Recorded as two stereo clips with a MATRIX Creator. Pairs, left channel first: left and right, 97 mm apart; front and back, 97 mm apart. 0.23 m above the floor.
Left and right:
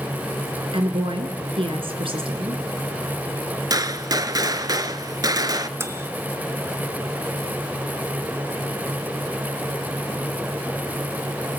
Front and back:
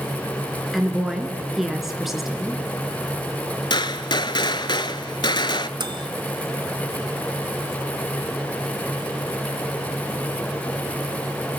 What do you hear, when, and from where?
0.7 s a woman speaking: 95° right, 2.5 m
3.7 s a gunshot: 40° right, 0.7 m
5.8 s a microwave: 150° right, 1.5 m